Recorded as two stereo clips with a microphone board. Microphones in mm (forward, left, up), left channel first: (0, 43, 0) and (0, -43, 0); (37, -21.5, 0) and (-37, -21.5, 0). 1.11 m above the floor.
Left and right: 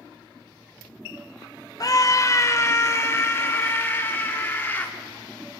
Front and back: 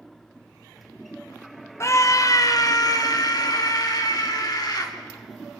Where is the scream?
45° left, 0.7 m; by 4.9 s 25° left, 2.5 m.